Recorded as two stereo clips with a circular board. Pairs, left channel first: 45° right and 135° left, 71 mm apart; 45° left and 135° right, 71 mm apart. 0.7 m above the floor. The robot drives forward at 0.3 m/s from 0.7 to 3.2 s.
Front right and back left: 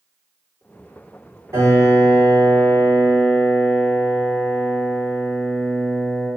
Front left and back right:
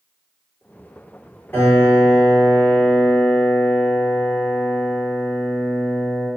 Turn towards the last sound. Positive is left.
turn(degrees=115)